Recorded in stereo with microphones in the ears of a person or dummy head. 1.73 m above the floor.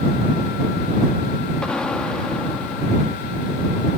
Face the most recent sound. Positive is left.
turn(degrees=5)  # may be behind; listen again after turning